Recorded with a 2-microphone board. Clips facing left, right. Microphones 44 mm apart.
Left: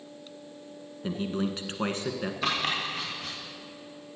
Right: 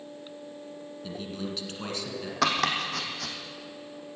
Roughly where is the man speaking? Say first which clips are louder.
Left 6 dB; left.